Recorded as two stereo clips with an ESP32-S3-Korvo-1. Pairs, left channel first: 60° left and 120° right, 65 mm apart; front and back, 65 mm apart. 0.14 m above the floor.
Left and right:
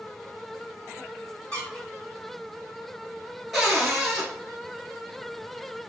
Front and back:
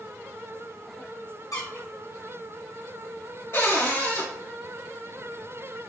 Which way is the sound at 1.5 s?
10° right.